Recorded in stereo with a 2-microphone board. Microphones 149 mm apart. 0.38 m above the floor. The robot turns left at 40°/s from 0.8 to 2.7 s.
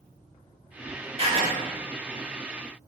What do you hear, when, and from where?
1.2 s writing: 40° right (ahead or behind), 0.9 m; by 1.5 s 35° right (ahead or behind), 0.9 m